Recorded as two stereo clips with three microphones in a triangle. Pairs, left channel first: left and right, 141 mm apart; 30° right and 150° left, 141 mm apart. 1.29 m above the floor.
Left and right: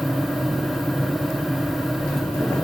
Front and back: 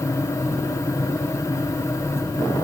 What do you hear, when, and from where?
Only background noise.